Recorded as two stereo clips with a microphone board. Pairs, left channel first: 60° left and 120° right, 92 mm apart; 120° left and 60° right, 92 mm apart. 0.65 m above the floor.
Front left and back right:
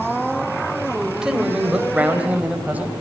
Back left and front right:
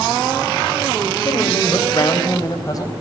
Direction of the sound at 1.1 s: 160° left.